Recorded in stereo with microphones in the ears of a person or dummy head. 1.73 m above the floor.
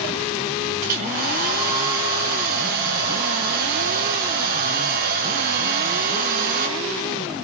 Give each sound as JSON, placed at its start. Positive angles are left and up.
{"t": 0.8, "sound": "a hair dryer", "side_deg": -60, "distance_m": 6.0}